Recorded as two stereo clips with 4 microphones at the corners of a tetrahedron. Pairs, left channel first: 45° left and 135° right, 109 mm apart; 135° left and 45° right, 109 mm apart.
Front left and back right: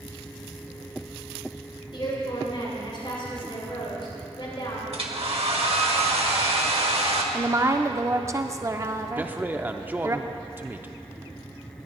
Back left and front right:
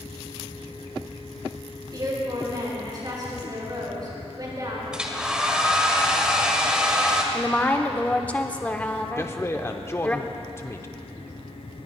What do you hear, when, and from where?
1.9 s a woman speaking: 5° left, 5 m
4.9 s a hair dryer: 125° right, 1.3 m
7.3 s a woman speaking: 160° right, 0.7 m
9.2 s a man speaking: 170° left, 0.7 m